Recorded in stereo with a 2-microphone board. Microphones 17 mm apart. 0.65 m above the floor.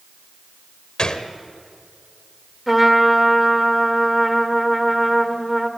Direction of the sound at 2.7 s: 5° right (ahead or behind).